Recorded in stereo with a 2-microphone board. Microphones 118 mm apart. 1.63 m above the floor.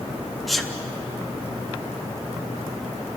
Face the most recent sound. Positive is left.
turn(degrees=0)  # may be behind; listen again after turning